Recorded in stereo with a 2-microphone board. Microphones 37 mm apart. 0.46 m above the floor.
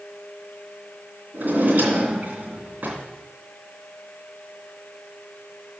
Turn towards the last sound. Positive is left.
turn(degrees=-50)  # may be behind; listen again after turning